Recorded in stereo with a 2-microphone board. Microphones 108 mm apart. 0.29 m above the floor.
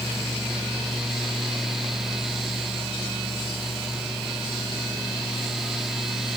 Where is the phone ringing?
I don't hear a phone ringing.